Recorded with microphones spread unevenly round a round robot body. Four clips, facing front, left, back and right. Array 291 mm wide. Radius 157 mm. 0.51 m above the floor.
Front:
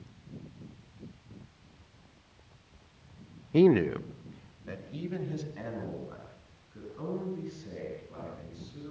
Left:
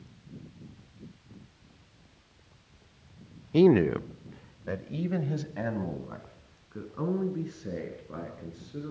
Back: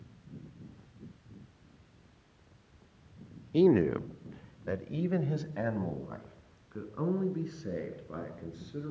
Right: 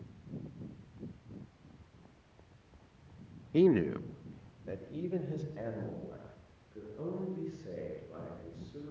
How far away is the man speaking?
About 0.7 m.